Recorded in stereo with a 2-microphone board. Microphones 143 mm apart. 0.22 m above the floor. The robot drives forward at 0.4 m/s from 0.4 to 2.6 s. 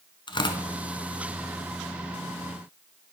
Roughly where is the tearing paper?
Left.